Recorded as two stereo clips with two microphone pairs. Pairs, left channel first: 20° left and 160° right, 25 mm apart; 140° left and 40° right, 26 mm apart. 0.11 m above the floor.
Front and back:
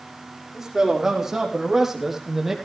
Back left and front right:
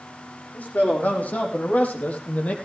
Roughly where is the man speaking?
Behind left.